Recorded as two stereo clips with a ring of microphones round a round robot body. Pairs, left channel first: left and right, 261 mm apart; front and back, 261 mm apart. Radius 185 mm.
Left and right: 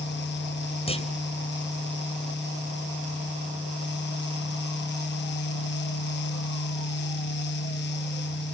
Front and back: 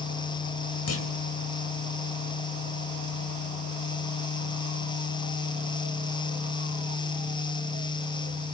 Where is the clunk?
20° left, 4 m.